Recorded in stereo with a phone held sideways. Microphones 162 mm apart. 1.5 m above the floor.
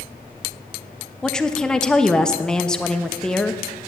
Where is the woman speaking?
5° left (ahead or behind), 0.9 m.